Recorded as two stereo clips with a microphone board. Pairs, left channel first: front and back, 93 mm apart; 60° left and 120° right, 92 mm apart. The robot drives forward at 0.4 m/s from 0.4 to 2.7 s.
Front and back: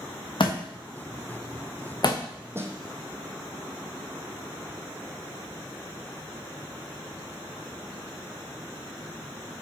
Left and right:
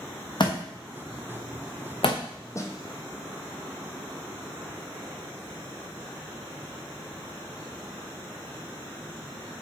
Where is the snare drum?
115° left, 0.8 m; by 2.8 s 120° left, 0.9 m.